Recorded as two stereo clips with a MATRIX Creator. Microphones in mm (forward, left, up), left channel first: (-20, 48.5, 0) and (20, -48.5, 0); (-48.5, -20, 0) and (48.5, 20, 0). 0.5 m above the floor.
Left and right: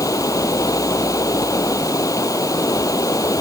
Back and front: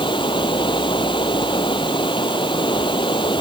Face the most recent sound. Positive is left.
turn(degrees=165)